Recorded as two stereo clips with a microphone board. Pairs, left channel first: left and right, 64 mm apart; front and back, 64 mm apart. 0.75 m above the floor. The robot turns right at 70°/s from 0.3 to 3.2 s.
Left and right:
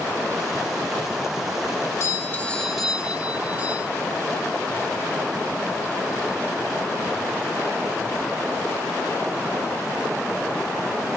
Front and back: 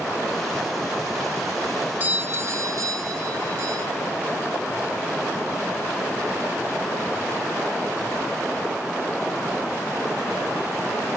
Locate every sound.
2.0 s a doorbell: 125° left, 1.8 m; by 3.9 s 150° right, 1.8 m